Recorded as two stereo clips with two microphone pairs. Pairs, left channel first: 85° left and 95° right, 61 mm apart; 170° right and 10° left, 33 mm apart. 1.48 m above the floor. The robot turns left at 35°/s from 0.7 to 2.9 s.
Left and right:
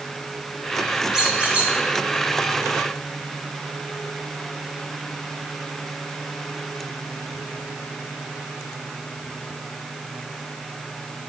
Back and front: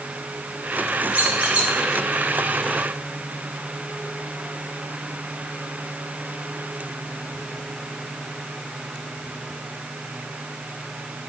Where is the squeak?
15° right, 2.5 m; by 1.7 s 35° right, 2.5 m.